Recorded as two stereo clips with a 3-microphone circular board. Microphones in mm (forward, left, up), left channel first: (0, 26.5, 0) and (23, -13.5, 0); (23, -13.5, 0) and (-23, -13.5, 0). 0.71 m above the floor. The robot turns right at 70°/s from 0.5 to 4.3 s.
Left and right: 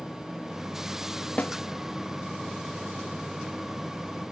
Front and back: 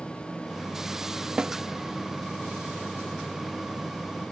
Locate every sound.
1.4 s a snare drum: 130° left; by 1.6 s 145° left